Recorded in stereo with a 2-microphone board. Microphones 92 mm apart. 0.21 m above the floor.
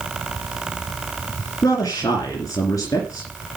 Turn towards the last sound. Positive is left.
turn(degrees=40)  # may be behind; listen again after turning